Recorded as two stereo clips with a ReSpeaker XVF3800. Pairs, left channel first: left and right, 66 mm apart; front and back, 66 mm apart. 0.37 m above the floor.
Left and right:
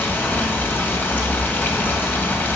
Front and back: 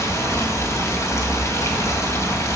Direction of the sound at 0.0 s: 30° left.